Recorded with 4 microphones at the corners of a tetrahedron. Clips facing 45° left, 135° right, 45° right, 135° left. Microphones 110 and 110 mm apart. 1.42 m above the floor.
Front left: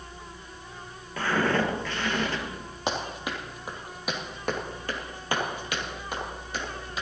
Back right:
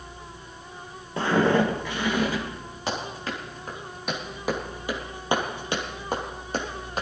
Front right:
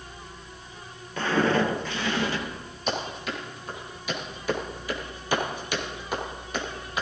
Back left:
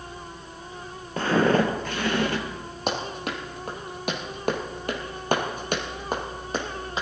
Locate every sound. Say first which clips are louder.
1.2 s footsteps: back right 4 dB, back left 2 dB; 170° left, 2.0 m; by 2.4 s 145° left, 2.5 m
2.9 s running footsteps: even, back left 1 dB; 110° left, 3.5 m; by 7.0 s 165° right, 3.5 m